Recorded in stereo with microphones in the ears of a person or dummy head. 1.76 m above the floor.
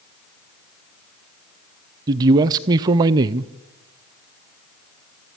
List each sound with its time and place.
2.1 s a man speaking: 25° right (ahead or behind), 0.5 m